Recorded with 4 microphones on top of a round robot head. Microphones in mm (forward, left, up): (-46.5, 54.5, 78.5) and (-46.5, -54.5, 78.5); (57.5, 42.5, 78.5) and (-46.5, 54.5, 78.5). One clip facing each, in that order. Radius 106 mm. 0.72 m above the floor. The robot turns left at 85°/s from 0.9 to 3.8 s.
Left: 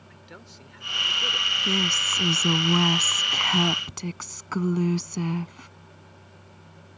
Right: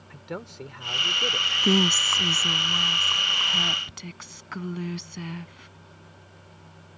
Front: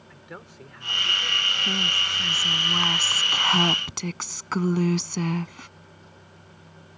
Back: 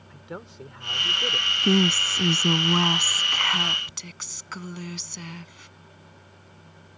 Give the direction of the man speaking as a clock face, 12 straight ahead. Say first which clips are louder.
Right 12 dB, back 4 dB; 4 o'clock.